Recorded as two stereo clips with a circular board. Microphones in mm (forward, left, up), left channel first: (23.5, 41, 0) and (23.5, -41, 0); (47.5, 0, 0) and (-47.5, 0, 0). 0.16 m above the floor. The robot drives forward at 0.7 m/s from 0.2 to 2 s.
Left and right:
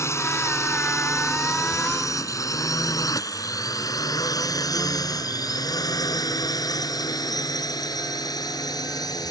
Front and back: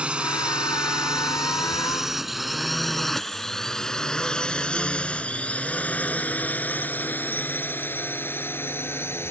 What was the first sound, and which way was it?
A drone, 110° left.